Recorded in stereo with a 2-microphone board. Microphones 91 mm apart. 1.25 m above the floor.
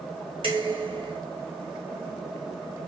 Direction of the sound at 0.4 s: 60° right (ahead or behind).